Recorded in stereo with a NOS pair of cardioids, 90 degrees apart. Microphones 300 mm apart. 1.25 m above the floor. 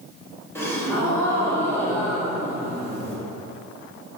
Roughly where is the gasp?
Ahead.